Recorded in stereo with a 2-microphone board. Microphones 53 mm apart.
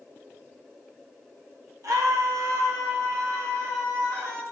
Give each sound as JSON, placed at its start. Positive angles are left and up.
{"t": 1.8, "sound": "a scream", "side_deg": -75, "distance_m": 1.2}